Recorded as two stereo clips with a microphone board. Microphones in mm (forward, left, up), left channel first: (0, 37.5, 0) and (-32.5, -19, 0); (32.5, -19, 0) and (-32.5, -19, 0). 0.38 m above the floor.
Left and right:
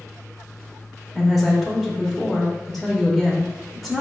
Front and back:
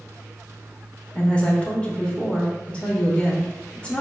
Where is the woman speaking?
30° right, 0.8 m.